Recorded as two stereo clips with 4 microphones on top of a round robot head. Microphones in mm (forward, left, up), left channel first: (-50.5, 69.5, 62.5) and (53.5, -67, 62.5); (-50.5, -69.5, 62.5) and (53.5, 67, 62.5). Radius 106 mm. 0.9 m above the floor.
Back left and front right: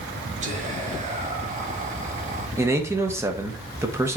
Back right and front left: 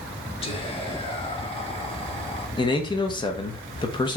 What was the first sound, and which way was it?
Whispering, 80° right.